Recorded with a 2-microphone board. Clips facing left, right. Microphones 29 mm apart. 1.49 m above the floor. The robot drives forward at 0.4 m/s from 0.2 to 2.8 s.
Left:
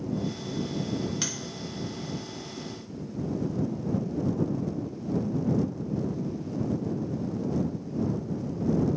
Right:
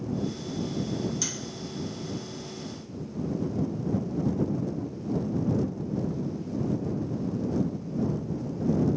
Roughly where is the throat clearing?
I don't hear throat clearing.